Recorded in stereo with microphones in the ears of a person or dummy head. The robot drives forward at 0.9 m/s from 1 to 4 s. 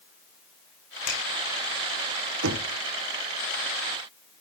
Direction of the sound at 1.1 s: 75° left (ahead or behind).